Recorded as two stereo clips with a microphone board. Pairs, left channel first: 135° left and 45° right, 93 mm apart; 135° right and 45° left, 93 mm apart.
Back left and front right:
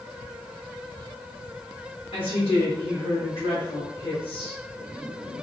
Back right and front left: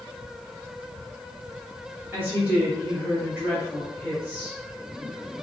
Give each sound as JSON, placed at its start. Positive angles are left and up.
{"t": 2.1, "sound": "a woman speaking", "azimuth_deg": 115, "distance_m": 1.0}